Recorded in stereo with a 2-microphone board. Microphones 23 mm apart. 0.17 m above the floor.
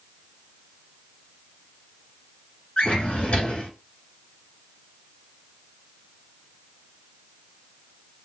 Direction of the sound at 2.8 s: 50° left (ahead or behind).